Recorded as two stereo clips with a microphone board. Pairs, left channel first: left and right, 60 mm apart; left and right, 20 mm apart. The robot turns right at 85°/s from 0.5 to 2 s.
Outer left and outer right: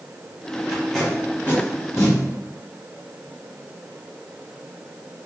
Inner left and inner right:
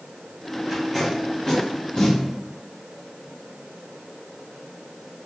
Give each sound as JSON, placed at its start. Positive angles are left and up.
{"t": 0.7, "sound": "tape being pulled", "side_deg": -10, "distance_m": 1.0}